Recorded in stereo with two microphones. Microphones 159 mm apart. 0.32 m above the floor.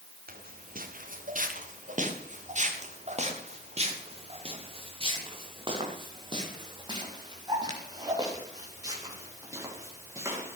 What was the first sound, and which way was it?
Footsteps, 65° right (ahead or behind).